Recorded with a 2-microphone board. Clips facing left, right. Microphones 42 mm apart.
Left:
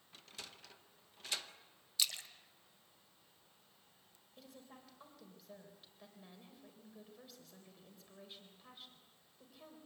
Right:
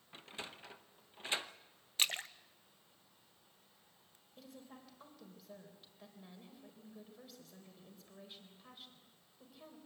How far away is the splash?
About 0.6 m.